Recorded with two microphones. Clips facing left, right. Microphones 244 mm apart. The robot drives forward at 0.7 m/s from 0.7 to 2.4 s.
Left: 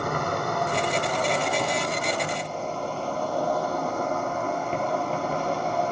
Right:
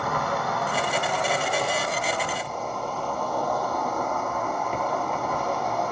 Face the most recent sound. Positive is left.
turn(degrees=25)  # may be behind; listen again after turning